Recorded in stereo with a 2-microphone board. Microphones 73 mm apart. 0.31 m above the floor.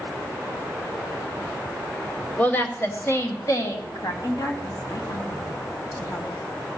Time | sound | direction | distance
2.4 | a woman speaking | 20° left (ahead or behind) | 1.2 m
4.2 | a woman speaking | 55° left (ahead or behind) | 2.5 m